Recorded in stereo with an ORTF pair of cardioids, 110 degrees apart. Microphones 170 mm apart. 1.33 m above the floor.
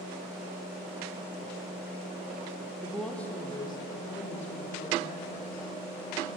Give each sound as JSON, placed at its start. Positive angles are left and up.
{"t": 2.8, "sound": "a woman speaking", "azimuth_deg": -5, "distance_m": 0.8}